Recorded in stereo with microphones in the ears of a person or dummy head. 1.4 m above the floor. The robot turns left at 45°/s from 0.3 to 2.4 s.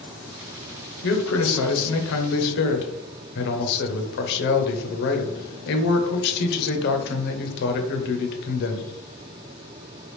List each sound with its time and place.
1.0 s a man speaking: 125° left, 0.8 m; by 8.9 s 60° left, 0.8 m